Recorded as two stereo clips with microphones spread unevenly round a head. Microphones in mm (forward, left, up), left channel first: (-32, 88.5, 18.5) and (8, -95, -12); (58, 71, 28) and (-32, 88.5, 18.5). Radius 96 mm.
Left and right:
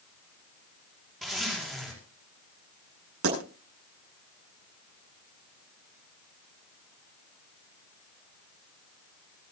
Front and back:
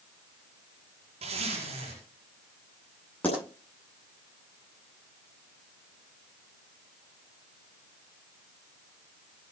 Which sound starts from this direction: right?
A pop, at 3.2 s.